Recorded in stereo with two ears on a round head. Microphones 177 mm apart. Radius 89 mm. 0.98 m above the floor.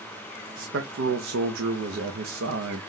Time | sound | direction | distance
0.6 | a man speaking | 70° right (ahead or behind) | 0.6 m